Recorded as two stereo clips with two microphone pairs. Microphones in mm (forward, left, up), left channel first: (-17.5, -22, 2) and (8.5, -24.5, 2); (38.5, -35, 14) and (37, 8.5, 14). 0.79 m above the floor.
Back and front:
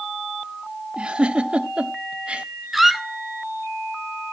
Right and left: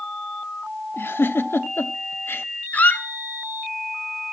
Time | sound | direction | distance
1.0 | a giggle | 60° right | 1.1 m
2.7 | a squeak | 95° right | 0.8 m